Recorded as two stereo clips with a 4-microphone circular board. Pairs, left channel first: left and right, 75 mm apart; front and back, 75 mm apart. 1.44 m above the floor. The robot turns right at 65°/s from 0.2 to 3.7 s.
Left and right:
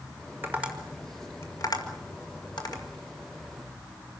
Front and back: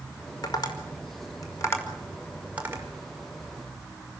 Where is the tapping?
30° right, 5 m; by 2.8 s 125° left, 5 m.